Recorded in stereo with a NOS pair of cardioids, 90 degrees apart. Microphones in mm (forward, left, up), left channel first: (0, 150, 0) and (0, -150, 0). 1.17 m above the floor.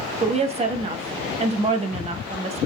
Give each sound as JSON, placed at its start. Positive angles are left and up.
{"t": 0.2, "sound": "a woman speaking", "azimuth_deg": -20, "distance_m": 1.0}